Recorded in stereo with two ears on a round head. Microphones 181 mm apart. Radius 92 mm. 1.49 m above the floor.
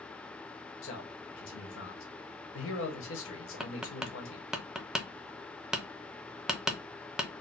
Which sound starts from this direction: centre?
Tapping, at 3.6 s.